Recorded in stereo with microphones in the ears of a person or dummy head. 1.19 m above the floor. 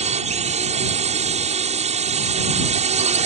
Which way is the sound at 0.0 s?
35° right (ahead or behind).